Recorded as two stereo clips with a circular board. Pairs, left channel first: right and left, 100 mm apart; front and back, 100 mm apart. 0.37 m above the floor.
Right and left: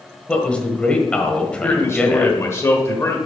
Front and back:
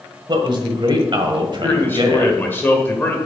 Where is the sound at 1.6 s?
55° right, 1.4 m.